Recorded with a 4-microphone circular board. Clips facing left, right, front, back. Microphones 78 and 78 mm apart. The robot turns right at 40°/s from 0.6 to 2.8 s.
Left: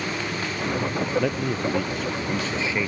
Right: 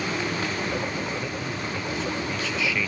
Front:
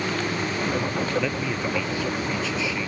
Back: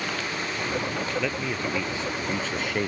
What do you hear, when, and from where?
1.2 s a man speaking: 85° left; by 2.9 s 150° left